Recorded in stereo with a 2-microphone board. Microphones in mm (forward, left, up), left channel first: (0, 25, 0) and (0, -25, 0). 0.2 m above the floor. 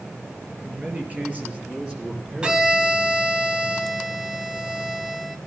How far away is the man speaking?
About 3.5 m.